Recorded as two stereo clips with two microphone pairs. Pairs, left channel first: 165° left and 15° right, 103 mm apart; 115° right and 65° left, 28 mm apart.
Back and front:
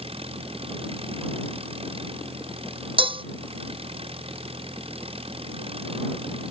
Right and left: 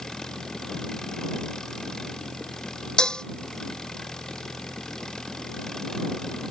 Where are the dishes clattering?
45° right.